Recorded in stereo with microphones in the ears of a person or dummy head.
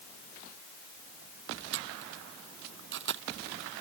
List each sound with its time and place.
1.7 s a camera shutter: 60° right (ahead or behind)